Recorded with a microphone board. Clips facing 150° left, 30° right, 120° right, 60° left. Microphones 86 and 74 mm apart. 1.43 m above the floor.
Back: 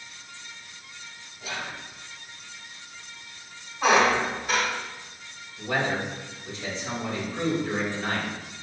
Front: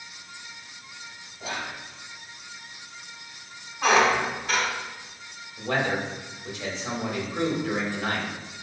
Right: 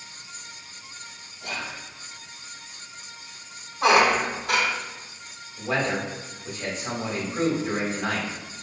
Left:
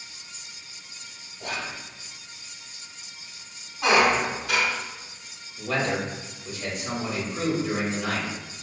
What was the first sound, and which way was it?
Whispering, 25° left.